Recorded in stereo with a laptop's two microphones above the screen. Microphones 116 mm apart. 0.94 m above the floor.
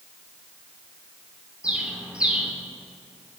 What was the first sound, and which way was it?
A bird, 10° right (ahead or behind).